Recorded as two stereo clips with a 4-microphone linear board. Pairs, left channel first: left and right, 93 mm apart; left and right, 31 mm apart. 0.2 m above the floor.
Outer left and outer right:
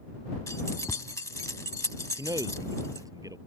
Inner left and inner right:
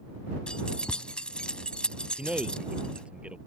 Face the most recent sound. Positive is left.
turn(degrees=-40)  # may be behind; listen again after turning